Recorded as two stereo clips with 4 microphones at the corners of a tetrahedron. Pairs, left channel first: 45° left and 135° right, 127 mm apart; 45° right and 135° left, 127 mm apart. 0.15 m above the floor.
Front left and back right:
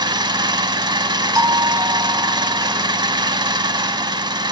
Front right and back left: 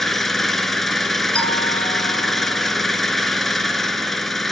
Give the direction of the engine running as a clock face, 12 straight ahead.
4 o'clock.